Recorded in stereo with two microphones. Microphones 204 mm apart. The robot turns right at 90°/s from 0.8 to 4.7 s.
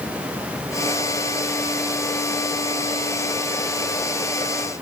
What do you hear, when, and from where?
Only background noise.